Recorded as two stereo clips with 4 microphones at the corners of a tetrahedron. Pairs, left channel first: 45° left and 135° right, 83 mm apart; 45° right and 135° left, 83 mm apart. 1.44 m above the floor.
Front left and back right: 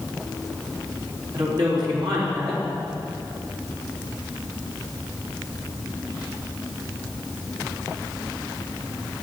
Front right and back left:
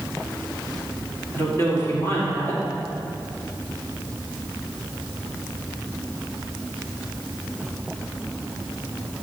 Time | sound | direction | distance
1.3 | a woman speaking | 105° right | 3.5 m